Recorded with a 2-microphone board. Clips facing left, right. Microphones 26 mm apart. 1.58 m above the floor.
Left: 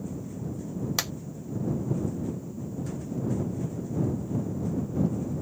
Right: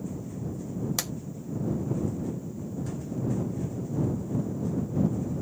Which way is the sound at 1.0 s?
25° left (ahead or behind).